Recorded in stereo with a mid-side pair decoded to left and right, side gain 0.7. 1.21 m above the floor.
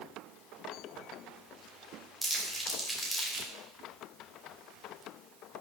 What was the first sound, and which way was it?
Crumpling, 5° left.